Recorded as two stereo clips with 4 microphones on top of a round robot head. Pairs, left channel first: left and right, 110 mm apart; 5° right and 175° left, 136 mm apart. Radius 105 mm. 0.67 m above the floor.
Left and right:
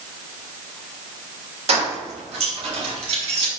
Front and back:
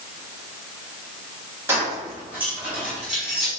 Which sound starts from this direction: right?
Keys jangling, at 1.7 s.